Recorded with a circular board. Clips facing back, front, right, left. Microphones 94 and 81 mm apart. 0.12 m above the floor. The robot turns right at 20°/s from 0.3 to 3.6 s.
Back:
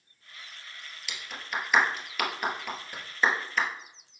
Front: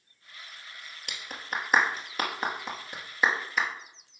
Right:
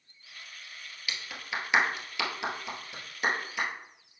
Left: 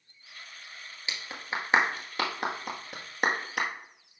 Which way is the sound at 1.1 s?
35° left.